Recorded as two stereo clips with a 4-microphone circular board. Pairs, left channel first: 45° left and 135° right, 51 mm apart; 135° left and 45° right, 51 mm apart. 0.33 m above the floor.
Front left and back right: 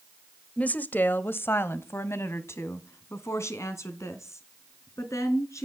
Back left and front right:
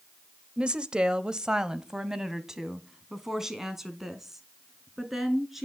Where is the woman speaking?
10° left, 1.0 m; by 5.7 s 40° left, 3.5 m.